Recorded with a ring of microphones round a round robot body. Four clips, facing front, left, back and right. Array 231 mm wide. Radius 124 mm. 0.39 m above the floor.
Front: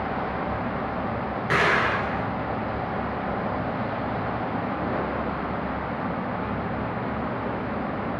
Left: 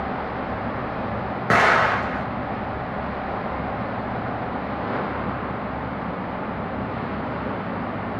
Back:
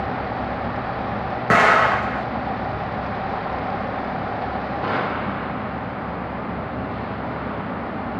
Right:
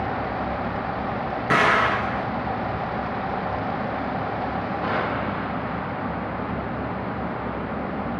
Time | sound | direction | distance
1.5 | an explosion | 155° left | 2.5 m